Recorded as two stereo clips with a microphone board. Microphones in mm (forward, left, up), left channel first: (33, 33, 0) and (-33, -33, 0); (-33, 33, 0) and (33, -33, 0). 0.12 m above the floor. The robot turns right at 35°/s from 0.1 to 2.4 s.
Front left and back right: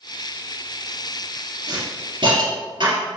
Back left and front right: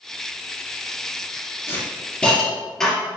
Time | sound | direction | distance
1.7 | a hiss | 165° right | 2.5 m